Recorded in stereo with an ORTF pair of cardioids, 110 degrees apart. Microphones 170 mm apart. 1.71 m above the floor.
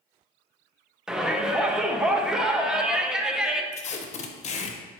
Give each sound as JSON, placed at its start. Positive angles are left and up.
{"t": 1.1, "sound": "a shout", "azimuth_deg": -5, "distance_m": 0.9}
{"t": 3.7, "sound": "tape being pulled", "azimuth_deg": 40, "distance_m": 0.8}